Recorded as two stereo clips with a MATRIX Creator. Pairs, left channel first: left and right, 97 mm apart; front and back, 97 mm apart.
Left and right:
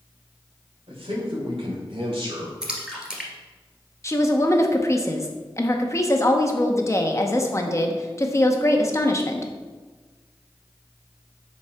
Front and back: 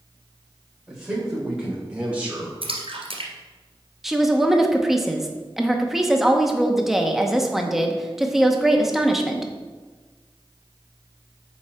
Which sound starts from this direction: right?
A man speaking, at 0.9 s.